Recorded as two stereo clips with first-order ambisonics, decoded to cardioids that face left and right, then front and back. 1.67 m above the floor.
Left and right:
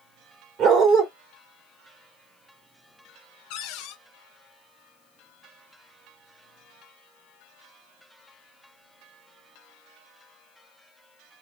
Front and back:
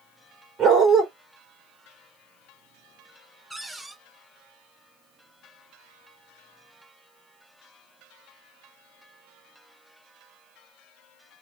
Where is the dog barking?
125° right, 1.8 m.